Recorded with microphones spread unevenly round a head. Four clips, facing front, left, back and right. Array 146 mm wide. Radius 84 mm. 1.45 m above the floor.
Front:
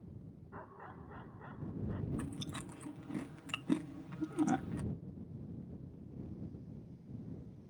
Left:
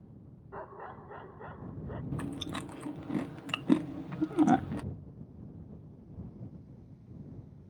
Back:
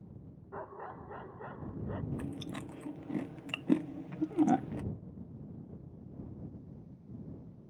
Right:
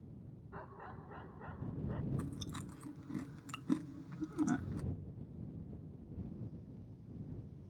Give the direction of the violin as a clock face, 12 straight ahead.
No violin in this recording.